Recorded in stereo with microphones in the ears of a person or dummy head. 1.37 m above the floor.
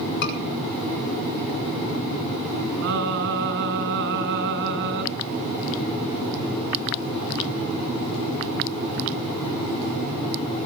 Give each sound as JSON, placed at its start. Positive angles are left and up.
{"t": 0.2, "sound": "a scream", "side_deg": 65, "distance_m": 7.0}
{"t": 2.8, "sound": "singing", "side_deg": -65, "distance_m": 6.5}